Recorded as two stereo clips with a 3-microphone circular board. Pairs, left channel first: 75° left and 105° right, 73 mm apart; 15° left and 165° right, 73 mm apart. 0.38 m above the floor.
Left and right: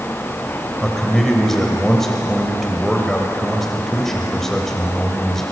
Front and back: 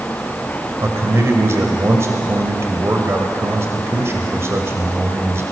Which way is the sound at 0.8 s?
160° left.